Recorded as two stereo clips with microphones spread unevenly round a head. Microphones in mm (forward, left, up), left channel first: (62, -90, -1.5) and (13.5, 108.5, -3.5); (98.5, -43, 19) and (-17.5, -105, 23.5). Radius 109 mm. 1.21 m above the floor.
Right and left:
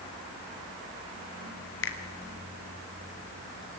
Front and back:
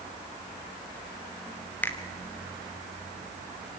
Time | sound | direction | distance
1.8 | a finger snap | 50° right | 3 m